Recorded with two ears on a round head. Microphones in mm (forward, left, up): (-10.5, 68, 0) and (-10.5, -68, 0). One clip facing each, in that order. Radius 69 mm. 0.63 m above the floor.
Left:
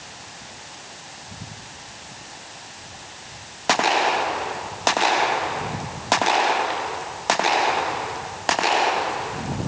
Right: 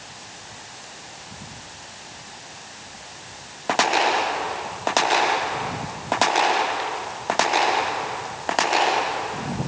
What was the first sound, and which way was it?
Only background noise.